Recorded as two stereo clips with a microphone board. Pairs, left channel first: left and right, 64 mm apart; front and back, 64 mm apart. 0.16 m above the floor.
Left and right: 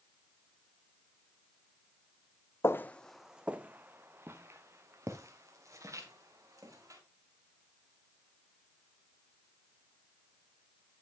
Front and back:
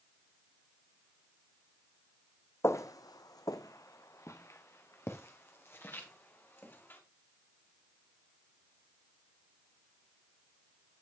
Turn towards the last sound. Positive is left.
turn(degrees=-55)